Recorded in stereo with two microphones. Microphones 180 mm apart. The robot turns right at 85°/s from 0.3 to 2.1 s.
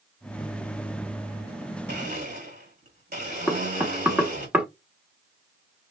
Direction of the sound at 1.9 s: 70° right (ahead or behind).